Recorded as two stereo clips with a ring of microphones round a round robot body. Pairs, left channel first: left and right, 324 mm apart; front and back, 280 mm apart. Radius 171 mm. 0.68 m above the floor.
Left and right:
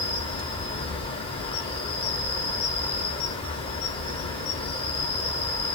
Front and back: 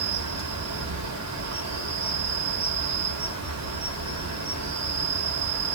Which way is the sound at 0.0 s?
165° left.